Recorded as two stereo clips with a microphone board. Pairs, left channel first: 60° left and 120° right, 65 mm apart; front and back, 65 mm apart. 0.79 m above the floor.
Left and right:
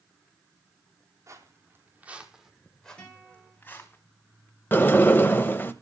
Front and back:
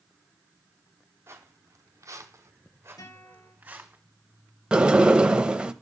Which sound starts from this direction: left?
A sliding door, at 4.7 s.